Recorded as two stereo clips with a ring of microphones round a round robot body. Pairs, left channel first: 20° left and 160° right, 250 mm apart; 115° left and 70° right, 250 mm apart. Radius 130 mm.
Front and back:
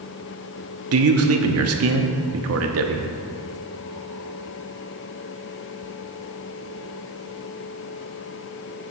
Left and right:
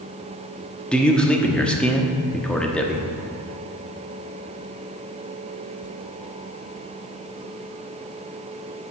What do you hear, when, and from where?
0.9 s a man speaking: 160° right, 0.9 m